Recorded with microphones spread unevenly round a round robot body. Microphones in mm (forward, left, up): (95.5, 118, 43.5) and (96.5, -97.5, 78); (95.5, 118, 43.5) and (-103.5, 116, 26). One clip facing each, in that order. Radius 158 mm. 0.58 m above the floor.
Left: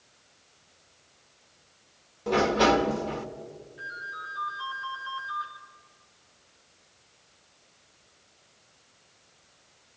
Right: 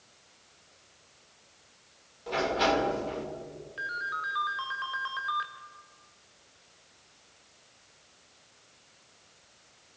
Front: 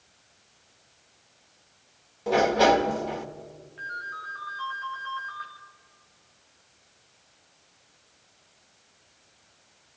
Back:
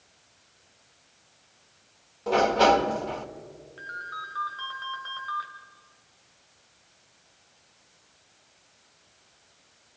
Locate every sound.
2.3 s a sliding door: 80° left, 1.6 m
3.8 s a ringtone: 120° right, 2.5 m